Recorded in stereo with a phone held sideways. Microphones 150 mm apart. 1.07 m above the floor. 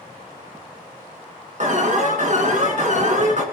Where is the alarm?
55° right (ahead or behind), 1.8 m.